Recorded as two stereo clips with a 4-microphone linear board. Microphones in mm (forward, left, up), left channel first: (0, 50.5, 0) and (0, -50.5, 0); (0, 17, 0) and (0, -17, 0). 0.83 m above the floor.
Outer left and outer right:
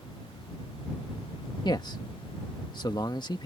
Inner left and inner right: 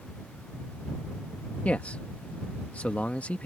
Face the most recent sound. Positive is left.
turn(degrees=45)  # may be behind; listen again after turning